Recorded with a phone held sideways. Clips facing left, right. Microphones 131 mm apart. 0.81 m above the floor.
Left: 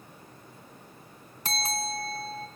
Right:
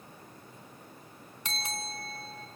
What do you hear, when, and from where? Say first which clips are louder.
1.4 s a bell: left 7 dB; 40° left (ahead or behind), 4 m